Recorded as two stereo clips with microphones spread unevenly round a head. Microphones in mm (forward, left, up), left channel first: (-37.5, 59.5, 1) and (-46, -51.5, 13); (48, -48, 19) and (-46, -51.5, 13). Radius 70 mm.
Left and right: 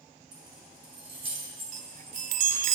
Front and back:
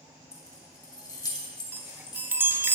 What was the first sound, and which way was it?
Keys jangling, 50° right.